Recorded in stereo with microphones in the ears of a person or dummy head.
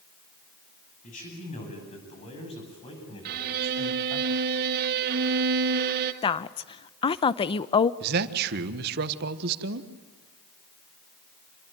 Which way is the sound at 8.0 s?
55° right (ahead or behind).